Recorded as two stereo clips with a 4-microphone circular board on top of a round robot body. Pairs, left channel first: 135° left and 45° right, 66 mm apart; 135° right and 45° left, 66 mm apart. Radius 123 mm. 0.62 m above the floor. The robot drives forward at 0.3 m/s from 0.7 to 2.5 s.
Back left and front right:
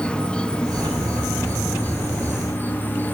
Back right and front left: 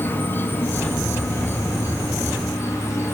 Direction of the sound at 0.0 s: 160° right.